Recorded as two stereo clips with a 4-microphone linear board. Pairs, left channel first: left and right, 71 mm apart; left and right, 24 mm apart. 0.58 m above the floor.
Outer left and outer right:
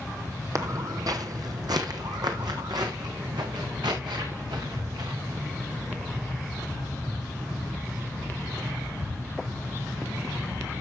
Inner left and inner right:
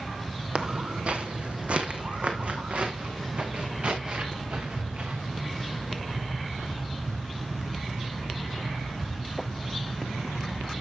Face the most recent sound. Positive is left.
turn(degrees=-85)